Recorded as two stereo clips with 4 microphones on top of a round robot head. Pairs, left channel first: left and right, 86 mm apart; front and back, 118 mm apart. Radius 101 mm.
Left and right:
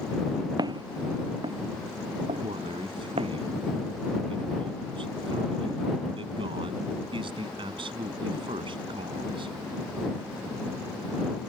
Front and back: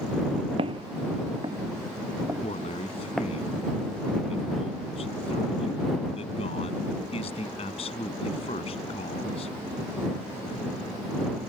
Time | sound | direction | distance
0.6 | footsteps | 125° right | ?
2.4 | a man speaking | 50° right | ?